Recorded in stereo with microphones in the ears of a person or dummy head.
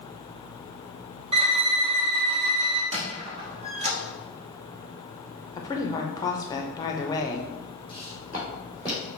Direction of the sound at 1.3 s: 30° right (ahead or behind).